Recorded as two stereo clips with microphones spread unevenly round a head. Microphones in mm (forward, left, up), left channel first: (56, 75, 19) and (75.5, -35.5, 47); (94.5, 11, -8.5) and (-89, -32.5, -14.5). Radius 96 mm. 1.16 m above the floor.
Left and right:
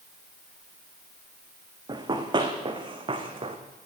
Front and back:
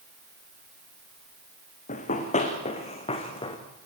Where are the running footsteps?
35° right, 4.5 m; by 3.6 s 50° right, 4.5 m.